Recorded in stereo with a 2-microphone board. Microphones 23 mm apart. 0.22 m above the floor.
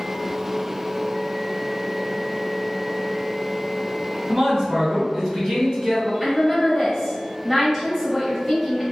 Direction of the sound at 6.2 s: 5° right (ahead or behind).